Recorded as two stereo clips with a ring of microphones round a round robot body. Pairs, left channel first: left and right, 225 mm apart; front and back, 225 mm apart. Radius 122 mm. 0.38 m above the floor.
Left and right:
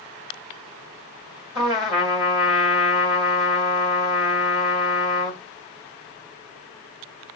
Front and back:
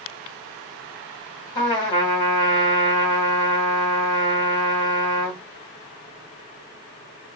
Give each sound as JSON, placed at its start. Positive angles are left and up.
{"t": 1.6, "sound": "a trumpet", "azimuth_deg": -45, "distance_m": 1.4}